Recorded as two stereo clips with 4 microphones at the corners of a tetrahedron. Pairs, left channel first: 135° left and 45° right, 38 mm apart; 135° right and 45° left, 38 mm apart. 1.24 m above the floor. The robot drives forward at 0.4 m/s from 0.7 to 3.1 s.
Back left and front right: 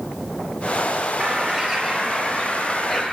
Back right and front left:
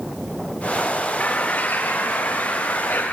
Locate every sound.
1.2 s a bird: 110° right, 0.7 m; by 3.1 s 155° right, 1.1 m